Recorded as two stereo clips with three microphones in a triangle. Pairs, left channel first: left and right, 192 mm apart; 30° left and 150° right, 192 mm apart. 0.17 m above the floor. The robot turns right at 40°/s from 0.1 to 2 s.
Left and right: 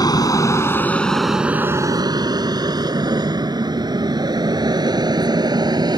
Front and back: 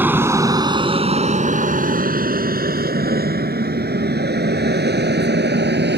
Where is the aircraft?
140° left; by 6.0 s 155° right.